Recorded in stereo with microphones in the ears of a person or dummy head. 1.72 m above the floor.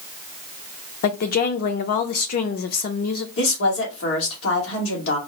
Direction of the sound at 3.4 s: 75° left (ahead or behind).